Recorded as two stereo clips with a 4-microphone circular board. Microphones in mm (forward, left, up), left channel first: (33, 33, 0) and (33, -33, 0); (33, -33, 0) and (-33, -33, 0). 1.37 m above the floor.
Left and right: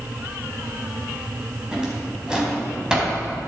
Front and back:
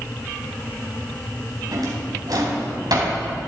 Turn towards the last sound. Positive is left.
turn(degrees=-170)